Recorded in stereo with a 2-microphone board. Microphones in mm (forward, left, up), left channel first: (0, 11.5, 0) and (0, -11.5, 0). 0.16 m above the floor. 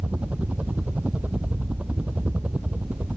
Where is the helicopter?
70° right (ahead or behind).